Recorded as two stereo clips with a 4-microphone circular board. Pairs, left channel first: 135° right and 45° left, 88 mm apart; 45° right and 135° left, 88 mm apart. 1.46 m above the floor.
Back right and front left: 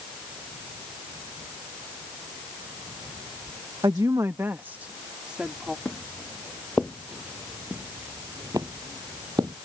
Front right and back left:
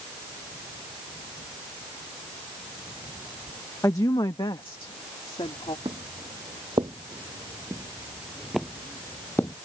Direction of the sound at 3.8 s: 10° left.